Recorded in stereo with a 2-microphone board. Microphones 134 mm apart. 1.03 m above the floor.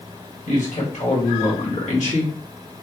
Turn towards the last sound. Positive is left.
turn(degrees=60)  # may be behind; listen again after turning